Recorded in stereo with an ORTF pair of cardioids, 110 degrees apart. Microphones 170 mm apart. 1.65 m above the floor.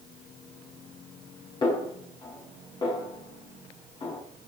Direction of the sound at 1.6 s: 25° left.